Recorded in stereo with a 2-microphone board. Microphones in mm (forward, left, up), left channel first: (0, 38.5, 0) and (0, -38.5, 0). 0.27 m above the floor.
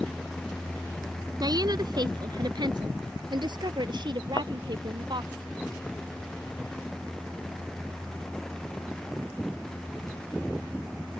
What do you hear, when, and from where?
1.4 s a woman speaking: 60° right (ahead or behind); by 5.4 s 70° right (ahead or behind)
4.4 s a thud: 60° left (ahead or behind)